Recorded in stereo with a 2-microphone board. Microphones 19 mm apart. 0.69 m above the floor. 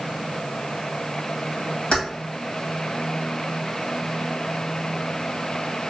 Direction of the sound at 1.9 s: 70° left (ahead or behind).